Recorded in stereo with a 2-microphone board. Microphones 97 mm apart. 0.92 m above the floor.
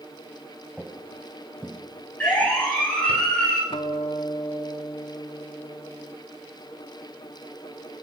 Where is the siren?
15° left (ahead or behind), 8.5 m; by 3.6 s 10° left (ahead or behind), 9 m.